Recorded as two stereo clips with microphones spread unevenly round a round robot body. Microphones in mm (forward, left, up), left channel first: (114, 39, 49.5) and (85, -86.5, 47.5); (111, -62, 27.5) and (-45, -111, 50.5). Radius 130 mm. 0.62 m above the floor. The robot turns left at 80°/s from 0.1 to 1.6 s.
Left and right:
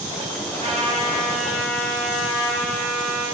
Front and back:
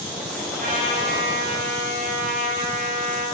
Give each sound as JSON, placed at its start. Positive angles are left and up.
{"t": 0.6, "sound": "a trumpet", "azimuth_deg": -135, "distance_m": 2.0}